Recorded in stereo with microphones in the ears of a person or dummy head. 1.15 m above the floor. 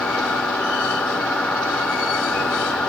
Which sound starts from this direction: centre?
A machine running, at 0.0 s.